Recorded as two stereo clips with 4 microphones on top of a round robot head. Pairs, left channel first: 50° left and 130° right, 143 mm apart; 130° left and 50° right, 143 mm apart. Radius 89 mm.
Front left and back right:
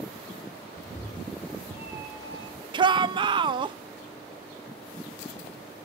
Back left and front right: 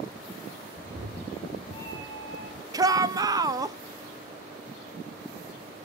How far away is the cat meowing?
About 1.2 m.